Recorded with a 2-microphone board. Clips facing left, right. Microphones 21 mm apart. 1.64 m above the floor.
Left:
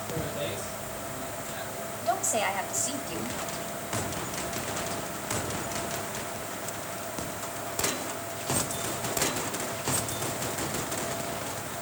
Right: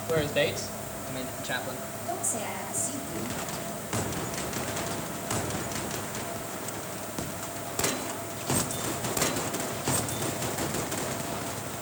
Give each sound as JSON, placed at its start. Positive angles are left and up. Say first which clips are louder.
{"t": 0.1, "sound": "a man speaking", "louder": "right 8 dB", "side_deg": -65, "distance_m": 3.5}
{"t": 2.0, "sound": "a woman speaking", "louder": "left 7 dB", "side_deg": 50, "distance_m": 3.0}